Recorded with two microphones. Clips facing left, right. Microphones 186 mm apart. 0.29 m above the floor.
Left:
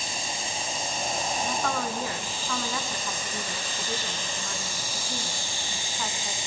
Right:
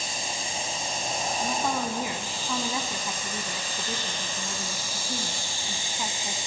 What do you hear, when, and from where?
1.4 s a woman speaking: 20° right (ahead or behind), 2.5 m